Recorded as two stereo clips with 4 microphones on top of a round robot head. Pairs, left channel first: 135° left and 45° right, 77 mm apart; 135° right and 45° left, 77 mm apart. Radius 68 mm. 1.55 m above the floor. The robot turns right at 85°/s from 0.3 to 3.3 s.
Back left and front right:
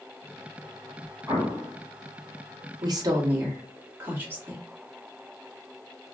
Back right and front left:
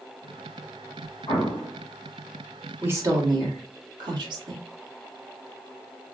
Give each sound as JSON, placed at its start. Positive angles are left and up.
{"t": 1.3, "sound": "an explosion", "azimuth_deg": -105, "distance_m": 1.5}
{"t": 2.8, "sound": "a woman speaking", "azimuth_deg": -20, "distance_m": 1.0}